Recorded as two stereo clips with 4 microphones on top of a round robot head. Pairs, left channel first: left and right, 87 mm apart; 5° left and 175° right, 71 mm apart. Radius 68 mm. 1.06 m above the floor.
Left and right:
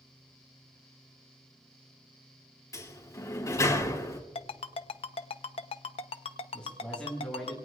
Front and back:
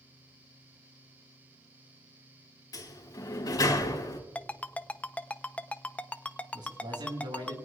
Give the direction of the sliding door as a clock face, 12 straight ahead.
11 o'clock.